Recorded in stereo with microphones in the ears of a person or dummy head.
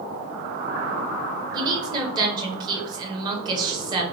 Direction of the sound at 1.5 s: 25° right (ahead or behind).